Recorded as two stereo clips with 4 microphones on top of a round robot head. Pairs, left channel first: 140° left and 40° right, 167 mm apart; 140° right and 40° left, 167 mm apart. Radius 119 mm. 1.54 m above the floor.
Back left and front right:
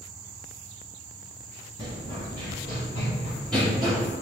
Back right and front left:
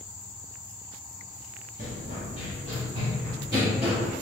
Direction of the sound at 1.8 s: 75° left.